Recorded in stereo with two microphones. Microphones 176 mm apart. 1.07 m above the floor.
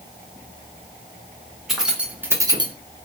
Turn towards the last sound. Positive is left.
turn(degrees=-30)  # may be behind; listen again after turning